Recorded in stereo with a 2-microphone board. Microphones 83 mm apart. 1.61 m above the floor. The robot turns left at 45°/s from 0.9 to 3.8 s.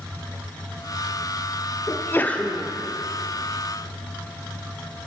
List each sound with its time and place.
1.9 s a sneeze: 40° left, 0.5 m; by 2.7 s straight ahead, 0.5 m